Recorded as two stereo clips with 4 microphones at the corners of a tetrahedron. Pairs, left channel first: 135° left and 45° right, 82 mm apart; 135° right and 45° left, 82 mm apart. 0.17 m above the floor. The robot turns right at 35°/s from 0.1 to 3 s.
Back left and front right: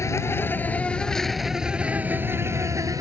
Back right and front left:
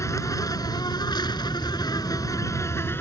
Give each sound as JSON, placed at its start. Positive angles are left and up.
{"t": 0.0, "sound": "an insect", "azimuth_deg": 180}